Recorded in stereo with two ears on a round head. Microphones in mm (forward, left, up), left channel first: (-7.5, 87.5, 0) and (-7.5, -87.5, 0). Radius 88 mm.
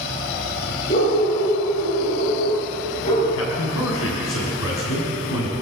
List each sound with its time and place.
0.9 s a dog barking: 40° left (ahead or behind), 9.5 m
3.3 s a man speaking: 80° left, 6.5 m